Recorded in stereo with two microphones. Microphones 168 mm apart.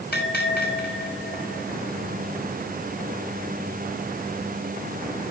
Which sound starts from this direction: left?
A bell, at 0.1 s.